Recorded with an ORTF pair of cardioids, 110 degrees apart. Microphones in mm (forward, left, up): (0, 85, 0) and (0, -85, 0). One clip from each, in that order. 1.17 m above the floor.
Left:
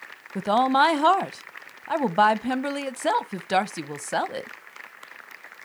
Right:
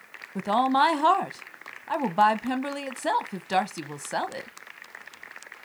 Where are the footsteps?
No footsteps in this recording.